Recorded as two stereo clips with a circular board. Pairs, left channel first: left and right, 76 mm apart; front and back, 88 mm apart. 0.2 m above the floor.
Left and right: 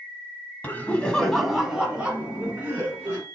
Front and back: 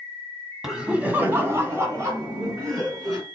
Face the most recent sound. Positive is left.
turn(degrees=-145)